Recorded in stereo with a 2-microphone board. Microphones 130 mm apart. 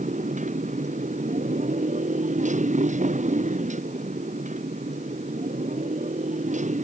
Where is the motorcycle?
70° right (ahead or behind); by 6.9 s 65° right (ahead or behind).